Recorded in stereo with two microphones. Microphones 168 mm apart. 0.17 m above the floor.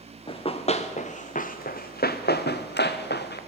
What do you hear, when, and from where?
0.3 s running footsteps: 35° left (ahead or behind), 1.6 m; by 3.4 s 80° left, 1.4 m